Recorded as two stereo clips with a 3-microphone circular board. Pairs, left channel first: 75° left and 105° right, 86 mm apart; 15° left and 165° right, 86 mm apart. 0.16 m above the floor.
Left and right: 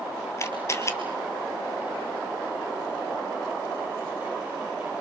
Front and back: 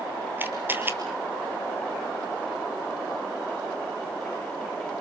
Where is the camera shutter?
130° left, 2 m.